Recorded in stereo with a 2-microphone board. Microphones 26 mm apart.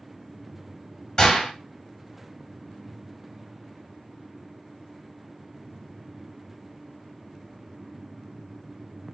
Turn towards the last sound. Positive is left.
turn(degrees=30)  # may be behind; listen again after turning